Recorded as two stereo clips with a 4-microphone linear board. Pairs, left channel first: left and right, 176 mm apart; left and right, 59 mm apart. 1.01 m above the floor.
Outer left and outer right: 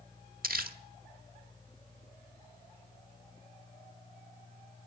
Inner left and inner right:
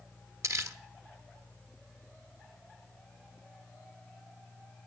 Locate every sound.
0.4 s crumpling: 60° right (ahead or behind), 1.2 m